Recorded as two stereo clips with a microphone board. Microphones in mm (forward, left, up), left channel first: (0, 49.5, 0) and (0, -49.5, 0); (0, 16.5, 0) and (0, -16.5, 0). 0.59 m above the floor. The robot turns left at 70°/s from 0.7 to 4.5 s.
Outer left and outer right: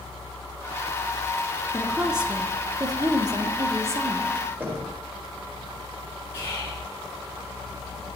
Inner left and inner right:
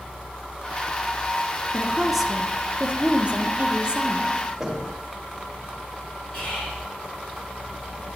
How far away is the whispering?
About 3.5 m.